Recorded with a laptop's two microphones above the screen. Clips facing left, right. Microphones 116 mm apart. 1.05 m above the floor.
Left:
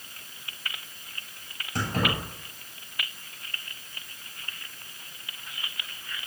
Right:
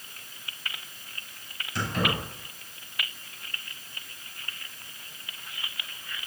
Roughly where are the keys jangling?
Left.